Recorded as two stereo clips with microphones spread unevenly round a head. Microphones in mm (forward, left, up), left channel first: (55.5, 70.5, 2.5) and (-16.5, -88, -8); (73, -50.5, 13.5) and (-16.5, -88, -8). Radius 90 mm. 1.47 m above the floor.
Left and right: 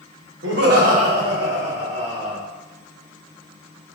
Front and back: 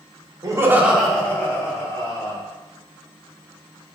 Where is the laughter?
105° right, 1.3 m; by 2.4 s 25° right, 3 m.